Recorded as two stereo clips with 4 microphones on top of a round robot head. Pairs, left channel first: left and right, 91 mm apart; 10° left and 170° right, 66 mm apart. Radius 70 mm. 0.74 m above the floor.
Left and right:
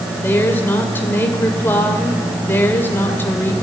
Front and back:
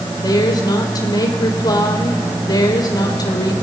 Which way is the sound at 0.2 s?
20° left.